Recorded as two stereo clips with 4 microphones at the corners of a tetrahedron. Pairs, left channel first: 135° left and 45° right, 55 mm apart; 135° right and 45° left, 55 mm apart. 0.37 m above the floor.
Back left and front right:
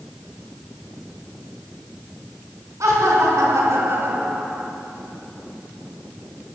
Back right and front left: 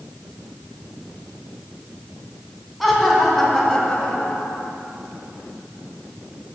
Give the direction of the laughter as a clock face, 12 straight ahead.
1 o'clock.